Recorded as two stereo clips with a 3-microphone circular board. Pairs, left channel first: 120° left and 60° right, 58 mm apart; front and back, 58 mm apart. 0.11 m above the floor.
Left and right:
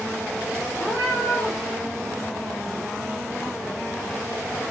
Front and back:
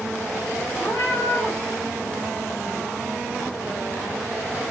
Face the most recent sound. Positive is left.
turn(degrees=20)